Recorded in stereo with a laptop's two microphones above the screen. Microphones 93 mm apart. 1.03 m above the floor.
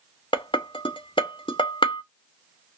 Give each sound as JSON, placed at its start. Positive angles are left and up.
{"t": 0.3, "sound": "dishes clattering", "side_deg": 60, "distance_m": 0.6}